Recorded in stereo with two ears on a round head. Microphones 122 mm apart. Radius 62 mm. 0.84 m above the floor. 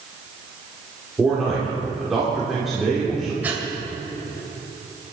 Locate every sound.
1.2 s a man speaking: centre (ahead or behind), 3 m
3.4 s breathing: 10° right (ahead or behind), 2.5 m